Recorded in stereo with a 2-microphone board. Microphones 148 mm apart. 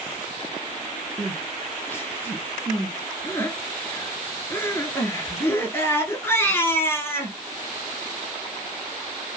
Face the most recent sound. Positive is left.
turn(degrees=15)  # may be behind; listen again after turning